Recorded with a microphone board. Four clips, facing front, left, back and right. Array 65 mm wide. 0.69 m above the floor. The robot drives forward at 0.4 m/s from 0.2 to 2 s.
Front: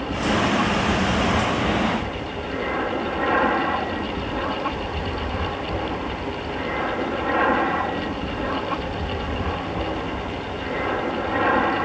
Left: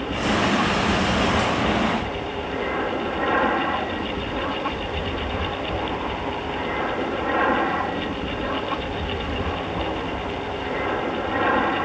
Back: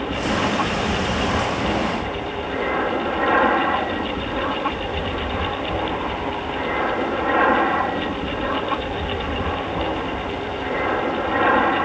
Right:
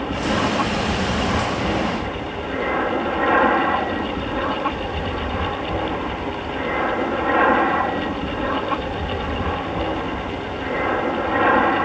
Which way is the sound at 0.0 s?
115° right.